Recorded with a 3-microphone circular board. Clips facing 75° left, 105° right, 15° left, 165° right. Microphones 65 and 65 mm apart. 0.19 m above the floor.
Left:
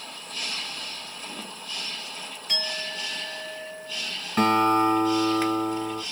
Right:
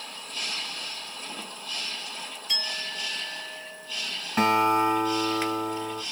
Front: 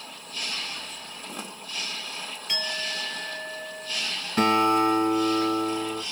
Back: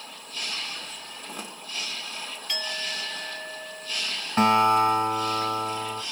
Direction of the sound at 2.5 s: 75° left.